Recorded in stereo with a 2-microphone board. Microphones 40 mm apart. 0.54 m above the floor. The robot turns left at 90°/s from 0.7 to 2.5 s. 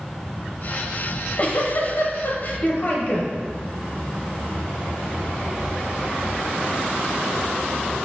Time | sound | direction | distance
1.1 | a giggle | 170° left | 0.6 m